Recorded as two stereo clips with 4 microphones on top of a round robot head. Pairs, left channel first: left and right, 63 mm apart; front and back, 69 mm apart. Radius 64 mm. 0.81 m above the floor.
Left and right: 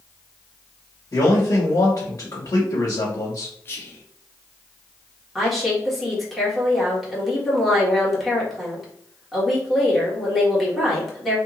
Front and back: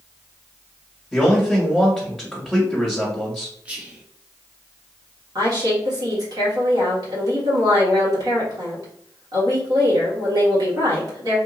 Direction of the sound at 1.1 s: 100° left.